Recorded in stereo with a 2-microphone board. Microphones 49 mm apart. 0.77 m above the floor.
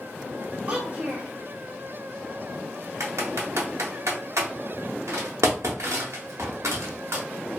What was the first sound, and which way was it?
A child speaking, 30° right (ahead or behind).